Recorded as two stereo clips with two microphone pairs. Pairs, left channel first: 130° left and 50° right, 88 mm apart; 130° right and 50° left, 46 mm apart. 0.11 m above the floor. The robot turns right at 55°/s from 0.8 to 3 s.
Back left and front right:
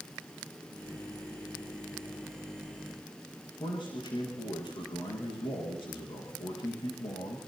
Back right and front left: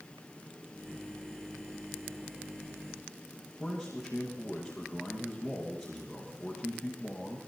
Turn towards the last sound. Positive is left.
turn(degrees=135)